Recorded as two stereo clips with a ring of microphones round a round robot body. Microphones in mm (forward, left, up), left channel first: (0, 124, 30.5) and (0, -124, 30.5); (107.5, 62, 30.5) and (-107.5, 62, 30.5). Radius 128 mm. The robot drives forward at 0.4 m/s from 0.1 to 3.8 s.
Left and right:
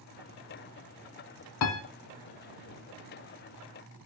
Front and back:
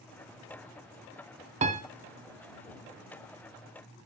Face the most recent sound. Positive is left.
turn(degrees=150)